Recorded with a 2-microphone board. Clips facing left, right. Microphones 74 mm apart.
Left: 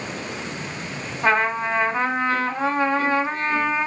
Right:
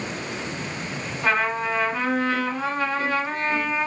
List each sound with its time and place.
1.2 s a trumpet: 35° left (ahead or behind), 1.7 m